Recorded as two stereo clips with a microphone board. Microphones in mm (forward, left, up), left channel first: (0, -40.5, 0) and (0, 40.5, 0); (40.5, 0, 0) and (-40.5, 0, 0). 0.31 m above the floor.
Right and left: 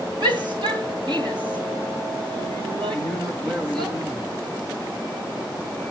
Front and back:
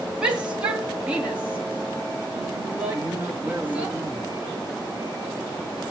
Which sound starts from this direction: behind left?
A man speaking, at 2.9 s.